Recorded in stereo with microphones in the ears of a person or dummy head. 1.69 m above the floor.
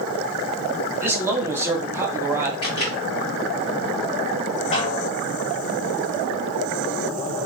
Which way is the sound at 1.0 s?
15° right (ahead or behind).